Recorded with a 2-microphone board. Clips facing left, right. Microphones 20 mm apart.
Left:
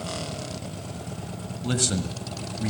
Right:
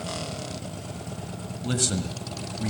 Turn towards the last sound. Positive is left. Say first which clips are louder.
# left 1 dB
turn(degrees=10)  # may be behind; listen again after turning